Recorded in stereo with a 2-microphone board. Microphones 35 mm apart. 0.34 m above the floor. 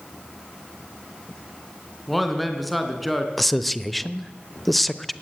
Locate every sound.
2.1 s a man speaking: centre (ahead or behind), 3.5 m
3.4 s a man speaking: 5° left (ahead or behind), 0.8 m